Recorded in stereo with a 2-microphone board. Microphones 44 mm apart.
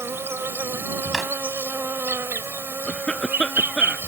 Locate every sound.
0.0 s an insect: 80° right
1.1 s a drawer: 5° right (ahead or behind)
2.9 s a cough: 20° left (ahead or behind)